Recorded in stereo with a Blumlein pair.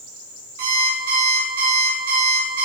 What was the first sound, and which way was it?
An alarm clock, 55° right.